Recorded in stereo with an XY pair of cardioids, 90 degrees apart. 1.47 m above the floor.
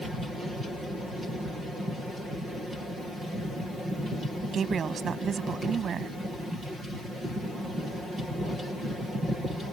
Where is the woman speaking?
60° right.